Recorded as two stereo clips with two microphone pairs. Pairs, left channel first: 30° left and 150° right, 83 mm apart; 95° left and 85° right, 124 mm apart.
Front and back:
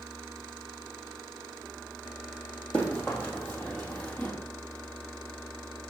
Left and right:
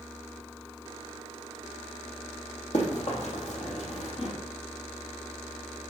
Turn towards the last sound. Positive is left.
turn(degrees=90)